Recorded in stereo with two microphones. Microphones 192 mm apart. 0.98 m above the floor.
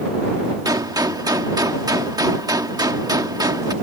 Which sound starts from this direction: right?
A gunshot, at 0.7 s.